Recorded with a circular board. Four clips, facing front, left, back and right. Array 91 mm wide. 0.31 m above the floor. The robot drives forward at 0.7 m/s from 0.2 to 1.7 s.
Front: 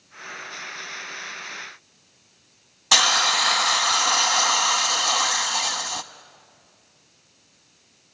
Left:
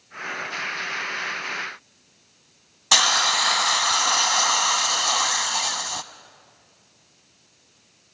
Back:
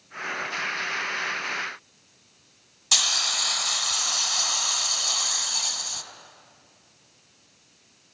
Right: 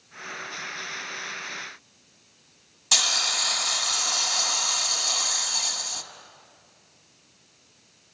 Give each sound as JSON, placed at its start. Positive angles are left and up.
{"t": 2.9, "sound": "a hiss", "azimuth_deg": 45, "distance_m": 0.6}